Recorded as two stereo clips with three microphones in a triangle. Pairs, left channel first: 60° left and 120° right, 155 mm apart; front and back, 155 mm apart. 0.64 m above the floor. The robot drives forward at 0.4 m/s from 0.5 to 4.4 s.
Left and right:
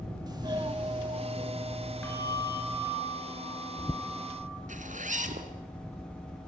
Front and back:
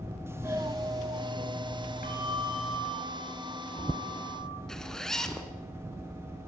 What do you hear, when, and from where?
0.3 s a doorbell: 130° right, 1.4 m; by 2.8 s 160° right, 1.9 m
2.0 s a bell: 15° right, 7.5 m; by 4.6 s 20° right, 7 m
4.7 s a zipper: 85° right, 2.5 m